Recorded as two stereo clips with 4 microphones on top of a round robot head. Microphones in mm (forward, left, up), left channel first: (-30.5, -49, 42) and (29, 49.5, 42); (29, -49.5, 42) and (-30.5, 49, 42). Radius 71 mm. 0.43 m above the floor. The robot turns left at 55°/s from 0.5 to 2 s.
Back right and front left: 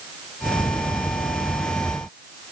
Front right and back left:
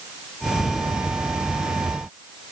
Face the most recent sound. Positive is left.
No sound to turn to.